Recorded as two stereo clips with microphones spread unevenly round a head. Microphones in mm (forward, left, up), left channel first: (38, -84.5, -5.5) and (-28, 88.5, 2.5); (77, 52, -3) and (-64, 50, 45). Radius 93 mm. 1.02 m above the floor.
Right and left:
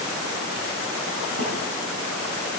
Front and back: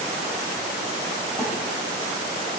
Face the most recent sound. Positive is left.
turn(degrees=85)